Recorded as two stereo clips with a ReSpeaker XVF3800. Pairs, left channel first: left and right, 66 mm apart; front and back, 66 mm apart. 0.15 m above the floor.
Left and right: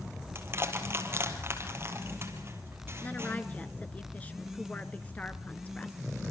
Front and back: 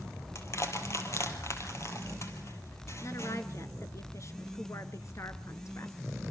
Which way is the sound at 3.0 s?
25° left.